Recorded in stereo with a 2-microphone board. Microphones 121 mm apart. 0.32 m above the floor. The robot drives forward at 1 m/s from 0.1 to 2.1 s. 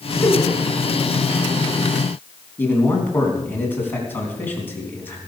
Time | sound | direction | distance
0.2 | a giggle | 20° left (ahead or behind) | 2 m
2.6 | a man speaking | 15° left (ahead or behind) | 3.5 m